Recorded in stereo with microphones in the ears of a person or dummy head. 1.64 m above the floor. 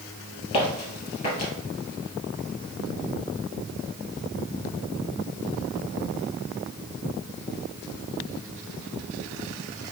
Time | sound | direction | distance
0.5 | footsteps | 25° left (ahead or behind) | 1.8 m